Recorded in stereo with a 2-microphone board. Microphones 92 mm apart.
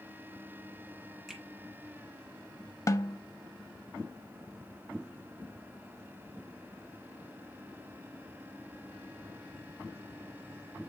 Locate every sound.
1.3 s a finger snap: centre (ahead or behind), 4.5 m
2.9 s a snare drum: 35° left (ahead or behind), 0.5 m